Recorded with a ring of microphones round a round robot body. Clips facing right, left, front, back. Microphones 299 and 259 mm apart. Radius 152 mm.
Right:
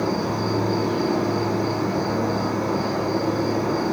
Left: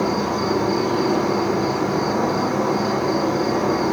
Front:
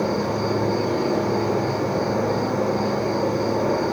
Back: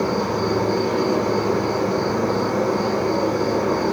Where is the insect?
105° left, 0.8 m.